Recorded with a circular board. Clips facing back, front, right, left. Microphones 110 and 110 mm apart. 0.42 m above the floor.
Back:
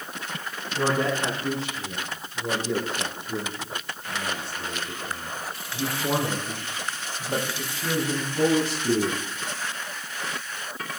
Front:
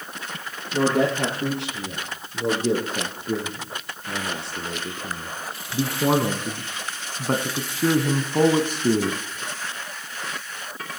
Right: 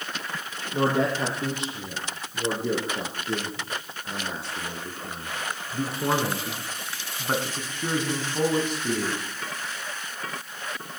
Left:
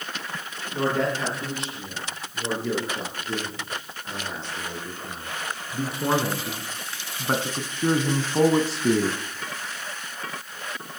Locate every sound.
0.7 s a man speaking: 20° right, 8 m; by 9.2 s 45° left, 3 m